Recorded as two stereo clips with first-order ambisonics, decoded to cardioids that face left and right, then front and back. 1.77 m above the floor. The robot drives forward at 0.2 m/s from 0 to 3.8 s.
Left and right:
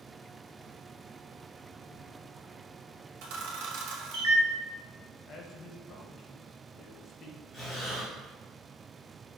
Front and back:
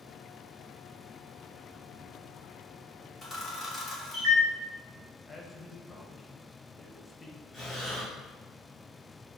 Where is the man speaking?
70° left, 0.6 m.